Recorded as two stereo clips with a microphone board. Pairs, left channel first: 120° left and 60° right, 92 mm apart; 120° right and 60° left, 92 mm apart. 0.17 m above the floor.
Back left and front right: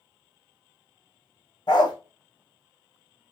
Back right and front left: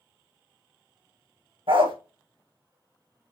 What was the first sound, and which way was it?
A dog barking, 80° left.